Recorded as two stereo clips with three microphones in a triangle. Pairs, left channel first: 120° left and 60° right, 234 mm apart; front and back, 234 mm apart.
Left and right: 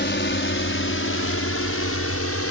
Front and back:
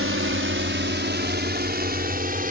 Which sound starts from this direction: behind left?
A drone, at 0.0 s.